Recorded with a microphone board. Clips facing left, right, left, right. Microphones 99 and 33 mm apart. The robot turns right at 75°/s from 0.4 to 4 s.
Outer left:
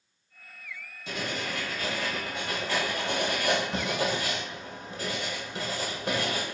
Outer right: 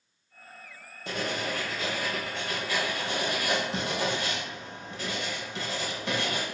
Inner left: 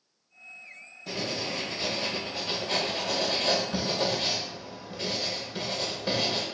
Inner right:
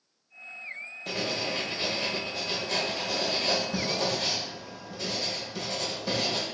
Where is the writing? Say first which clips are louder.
Outer right 2 dB, inner right 1 dB; 85° right, 1.2 m; by 6.4 s 135° left, 1.2 m.